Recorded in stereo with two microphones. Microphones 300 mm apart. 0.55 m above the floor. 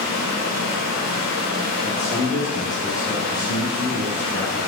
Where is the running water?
60° right (ahead or behind), 1.3 m.